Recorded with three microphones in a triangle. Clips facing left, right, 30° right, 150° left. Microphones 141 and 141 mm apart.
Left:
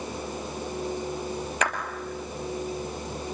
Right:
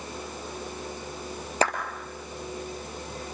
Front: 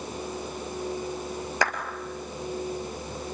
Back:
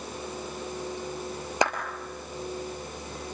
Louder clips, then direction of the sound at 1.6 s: Right 4 dB, back 2 dB; 140° right.